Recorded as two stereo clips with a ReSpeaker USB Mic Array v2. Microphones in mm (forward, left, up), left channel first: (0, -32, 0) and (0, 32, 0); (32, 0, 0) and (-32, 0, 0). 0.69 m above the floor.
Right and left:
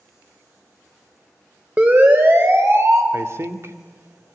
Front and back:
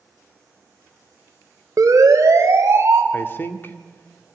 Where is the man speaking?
50° left, 1.9 m.